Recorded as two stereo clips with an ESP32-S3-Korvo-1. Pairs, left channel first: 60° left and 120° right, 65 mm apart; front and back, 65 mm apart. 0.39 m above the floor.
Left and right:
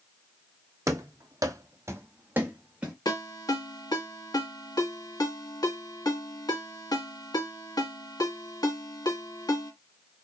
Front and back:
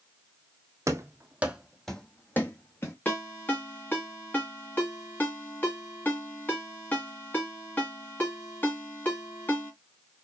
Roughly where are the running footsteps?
Behind right.